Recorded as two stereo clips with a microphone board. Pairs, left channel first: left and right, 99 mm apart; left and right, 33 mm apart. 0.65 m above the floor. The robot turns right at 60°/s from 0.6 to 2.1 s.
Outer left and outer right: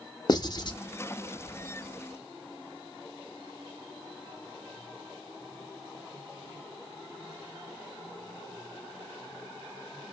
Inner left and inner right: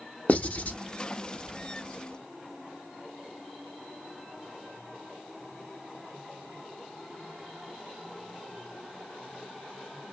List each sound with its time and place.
0.3 s writing: 45° left (ahead or behind), 0.7 m; by 0.8 s 55° left (ahead or behind), 0.7 m